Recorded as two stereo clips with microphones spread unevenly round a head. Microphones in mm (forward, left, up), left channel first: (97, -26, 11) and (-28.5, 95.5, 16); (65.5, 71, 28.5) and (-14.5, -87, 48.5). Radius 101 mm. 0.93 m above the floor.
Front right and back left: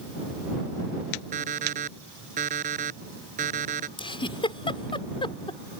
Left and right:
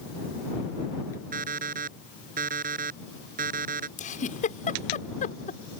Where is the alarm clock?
165° right.